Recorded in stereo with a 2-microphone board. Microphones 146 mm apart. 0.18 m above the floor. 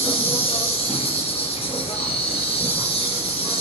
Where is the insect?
40° left (ahead or behind), 3 m.